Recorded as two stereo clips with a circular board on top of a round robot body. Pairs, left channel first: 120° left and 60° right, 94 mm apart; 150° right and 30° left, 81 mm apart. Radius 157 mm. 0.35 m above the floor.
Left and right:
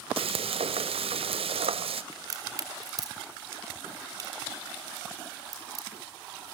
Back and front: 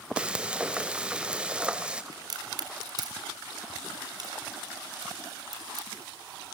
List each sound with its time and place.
0.2 s frying: 50° right, 0.8 m
2.1 s a crack: 5° right, 4 m